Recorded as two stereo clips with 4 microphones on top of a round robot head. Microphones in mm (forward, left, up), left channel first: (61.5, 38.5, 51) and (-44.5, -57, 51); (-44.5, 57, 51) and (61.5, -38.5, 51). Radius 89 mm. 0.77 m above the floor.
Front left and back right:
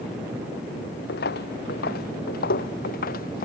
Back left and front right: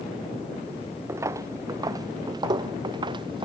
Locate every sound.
1.1 s footsteps: 30° left; by 3.5 s 15° left